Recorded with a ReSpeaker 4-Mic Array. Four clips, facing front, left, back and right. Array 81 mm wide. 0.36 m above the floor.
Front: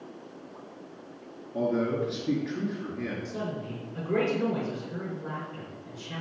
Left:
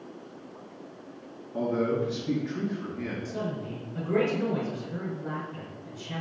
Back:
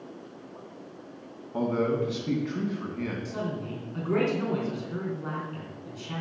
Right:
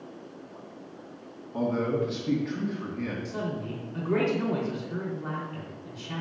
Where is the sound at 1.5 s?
160° right, 2.5 m.